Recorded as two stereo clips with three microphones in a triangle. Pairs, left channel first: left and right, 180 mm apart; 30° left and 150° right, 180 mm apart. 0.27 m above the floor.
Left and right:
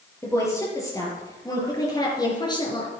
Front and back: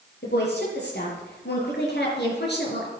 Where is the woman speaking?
15° left, 7.5 m; by 2.9 s 25° left, 5 m.